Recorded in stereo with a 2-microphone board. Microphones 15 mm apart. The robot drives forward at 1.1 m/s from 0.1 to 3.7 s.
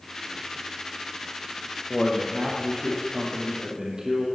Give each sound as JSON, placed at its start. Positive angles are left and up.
{"t": 1.9, "sound": "a man speaking", "side_deg": -75, "distance_m": 4.0}